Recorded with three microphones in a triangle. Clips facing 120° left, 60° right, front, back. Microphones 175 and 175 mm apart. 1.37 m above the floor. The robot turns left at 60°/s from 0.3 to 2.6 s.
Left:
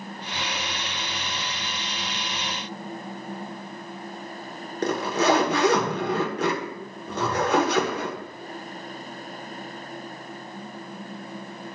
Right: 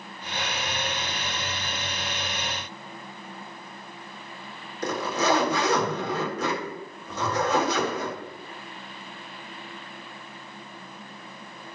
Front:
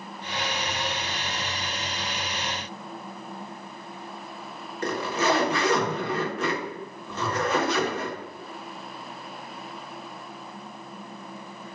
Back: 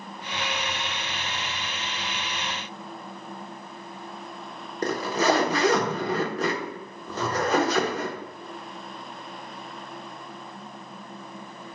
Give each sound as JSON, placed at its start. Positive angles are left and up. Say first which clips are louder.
{"t": 4.8, "sound": "a zipper", "louder": "left 3 dB, back 2 dB", "azimuth_deg": 130, "distance_m": 1.0}